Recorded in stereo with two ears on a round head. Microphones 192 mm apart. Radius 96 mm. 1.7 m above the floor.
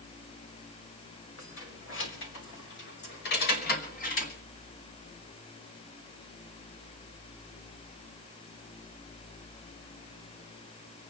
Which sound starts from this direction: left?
Keys jangling, at 1.4 s.